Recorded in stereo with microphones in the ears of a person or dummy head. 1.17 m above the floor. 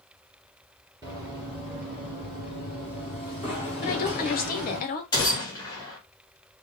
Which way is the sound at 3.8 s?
35° left (ahead or behind).